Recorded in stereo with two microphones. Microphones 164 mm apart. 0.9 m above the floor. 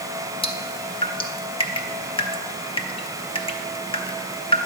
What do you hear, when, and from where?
0.4 s dripping: 30° left (ahead or behind), 0.8 m